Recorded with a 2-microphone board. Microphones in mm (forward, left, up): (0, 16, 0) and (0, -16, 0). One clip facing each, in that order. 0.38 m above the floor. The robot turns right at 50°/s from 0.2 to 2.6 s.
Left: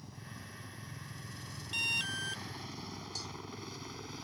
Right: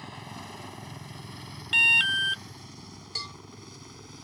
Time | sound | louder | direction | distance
0.0 | a helicopter | right 9 dB | 60° right (ahead or behind) | ?
1.7 | an alarm | right 14 dB | 85° right | ?
3.1 | a cowbell | right 10 dB | 50° right (ahead or behind) | ?